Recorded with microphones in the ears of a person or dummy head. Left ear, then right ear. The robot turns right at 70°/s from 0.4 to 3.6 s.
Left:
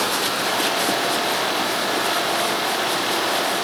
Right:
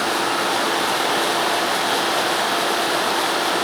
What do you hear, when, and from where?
Only background noise.